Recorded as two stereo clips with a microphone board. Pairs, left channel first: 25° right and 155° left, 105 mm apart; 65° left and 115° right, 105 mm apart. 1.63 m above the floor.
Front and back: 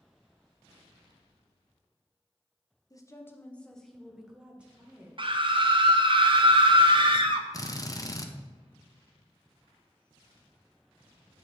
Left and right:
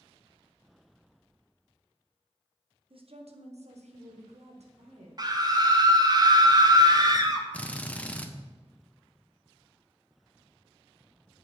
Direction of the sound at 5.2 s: 165° right.